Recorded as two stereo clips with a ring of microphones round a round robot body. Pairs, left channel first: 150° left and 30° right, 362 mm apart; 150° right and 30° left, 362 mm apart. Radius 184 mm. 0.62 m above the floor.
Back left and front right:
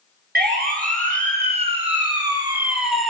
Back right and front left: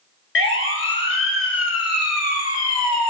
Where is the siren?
95° right, 5 m; by 3.1 s 120° right, 2.5 m.